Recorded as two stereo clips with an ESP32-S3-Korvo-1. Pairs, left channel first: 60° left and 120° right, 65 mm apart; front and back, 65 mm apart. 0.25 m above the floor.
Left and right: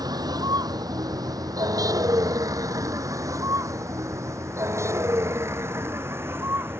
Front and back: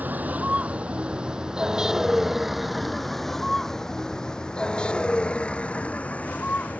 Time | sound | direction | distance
0.0 | a vehicle | 115° right | ?